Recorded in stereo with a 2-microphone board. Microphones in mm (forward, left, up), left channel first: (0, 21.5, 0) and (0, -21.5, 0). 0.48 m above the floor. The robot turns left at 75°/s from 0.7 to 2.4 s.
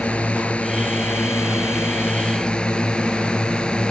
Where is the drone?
150° left; by 3.9 s 25° left.